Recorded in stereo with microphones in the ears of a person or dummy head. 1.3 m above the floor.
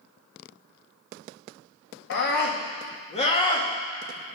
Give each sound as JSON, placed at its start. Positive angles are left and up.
{"t": 2.1, "sound": "a scream", "side_deg": 65, "distance_m": 1.5}